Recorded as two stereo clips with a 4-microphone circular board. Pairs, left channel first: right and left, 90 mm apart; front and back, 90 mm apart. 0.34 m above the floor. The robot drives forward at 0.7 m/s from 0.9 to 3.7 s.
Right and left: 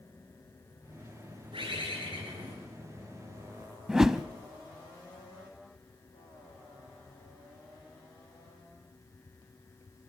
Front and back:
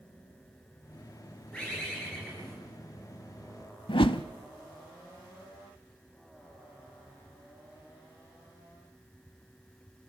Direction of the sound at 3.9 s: 5° left.